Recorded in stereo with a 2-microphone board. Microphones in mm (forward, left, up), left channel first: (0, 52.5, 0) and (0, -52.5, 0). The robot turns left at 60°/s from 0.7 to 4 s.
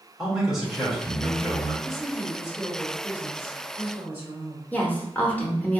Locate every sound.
0.2 s a man speaking: 175° right, 1.3 m; by 1.7 s 125° left, 1.3 m
1.8 s a woman speaking: 10° left (ahead or behind), 1.1 m; by 4.7 s 20° right (ahead or behind), 1.1 m
4.7 s a woman speaking: 15° left (ahead or behind), 0.8 m